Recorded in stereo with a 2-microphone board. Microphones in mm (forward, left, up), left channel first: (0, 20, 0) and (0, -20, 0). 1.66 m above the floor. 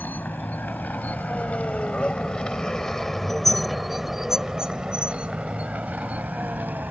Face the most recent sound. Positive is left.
turn(degrees=-45)  # may be behind; listen again after turning